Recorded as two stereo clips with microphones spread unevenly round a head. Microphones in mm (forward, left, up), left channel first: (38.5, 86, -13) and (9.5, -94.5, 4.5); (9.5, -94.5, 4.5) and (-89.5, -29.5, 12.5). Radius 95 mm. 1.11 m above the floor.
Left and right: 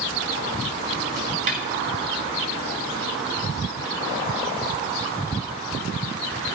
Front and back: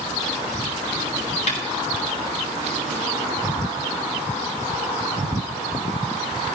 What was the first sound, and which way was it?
A snare drum, 50° right.